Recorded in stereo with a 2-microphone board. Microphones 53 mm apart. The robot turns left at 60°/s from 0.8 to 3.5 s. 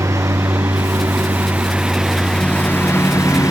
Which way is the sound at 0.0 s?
100° right.